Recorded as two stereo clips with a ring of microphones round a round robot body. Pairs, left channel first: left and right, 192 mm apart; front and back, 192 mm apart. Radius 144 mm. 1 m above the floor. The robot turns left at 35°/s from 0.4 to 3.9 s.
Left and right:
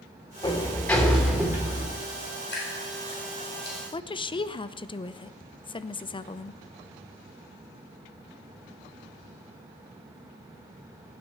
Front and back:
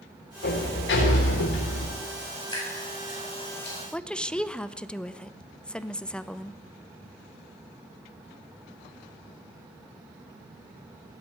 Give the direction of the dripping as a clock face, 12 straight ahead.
10 o'clock.